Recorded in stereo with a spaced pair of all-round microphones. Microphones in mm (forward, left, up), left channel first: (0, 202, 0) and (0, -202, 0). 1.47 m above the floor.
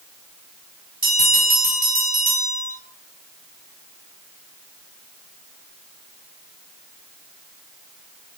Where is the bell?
20° right (ahead or behind), 6 m.